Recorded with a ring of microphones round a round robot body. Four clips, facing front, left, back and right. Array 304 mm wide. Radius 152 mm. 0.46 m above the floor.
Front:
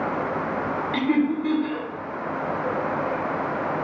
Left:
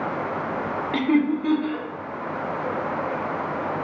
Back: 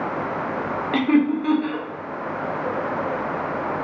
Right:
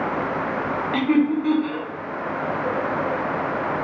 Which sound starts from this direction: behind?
Laughter, at 0.9 s.